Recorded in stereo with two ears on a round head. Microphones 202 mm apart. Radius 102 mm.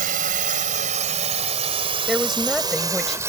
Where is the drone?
40° right (ahead or behind); by 3.3 s 10° right (ahead or behind).